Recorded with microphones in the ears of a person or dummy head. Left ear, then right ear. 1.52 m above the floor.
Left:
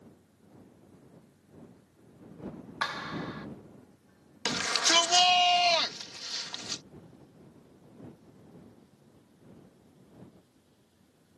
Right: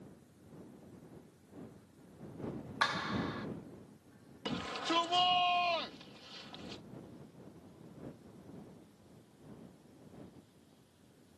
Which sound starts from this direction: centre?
A clap, at 2.8 s.